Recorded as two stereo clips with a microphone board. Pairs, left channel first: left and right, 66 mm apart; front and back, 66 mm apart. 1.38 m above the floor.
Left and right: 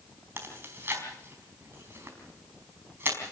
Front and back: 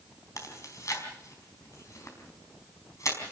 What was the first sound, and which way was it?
Chewing, 35° right.